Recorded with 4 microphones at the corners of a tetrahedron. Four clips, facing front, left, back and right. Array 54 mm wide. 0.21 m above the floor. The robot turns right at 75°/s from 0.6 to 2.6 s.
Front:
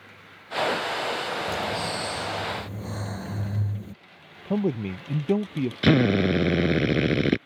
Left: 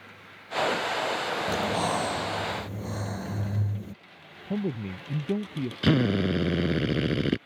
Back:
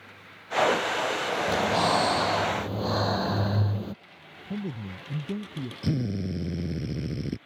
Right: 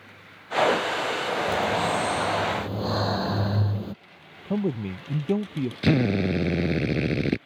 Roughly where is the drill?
Ahead.